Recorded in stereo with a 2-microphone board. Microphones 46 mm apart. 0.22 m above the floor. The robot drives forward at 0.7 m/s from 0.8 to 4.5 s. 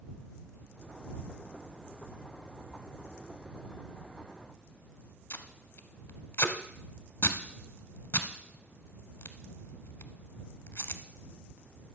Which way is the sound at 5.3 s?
60° left (ahead or behind).